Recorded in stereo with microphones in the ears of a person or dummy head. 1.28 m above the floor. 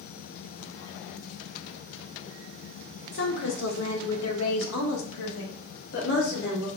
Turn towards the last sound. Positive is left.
turn(degrees=50)  # may be behind; listen again after turning